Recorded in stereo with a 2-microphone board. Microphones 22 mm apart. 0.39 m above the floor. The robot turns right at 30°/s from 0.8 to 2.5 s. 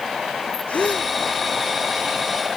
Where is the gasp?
70° left (ahead or behind); by 1.1 s 60° left (ahead or behind).